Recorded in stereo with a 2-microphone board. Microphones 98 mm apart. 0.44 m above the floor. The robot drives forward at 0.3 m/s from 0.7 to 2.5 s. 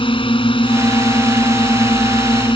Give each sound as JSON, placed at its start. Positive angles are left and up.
{"t": 0.0, "sound": "a drone", "side_deg": 60}